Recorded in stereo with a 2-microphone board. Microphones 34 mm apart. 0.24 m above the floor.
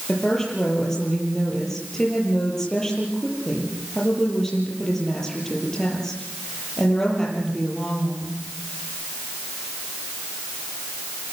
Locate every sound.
0.1 s a woman speaking: 10° left (ahead or behind), 6.5 m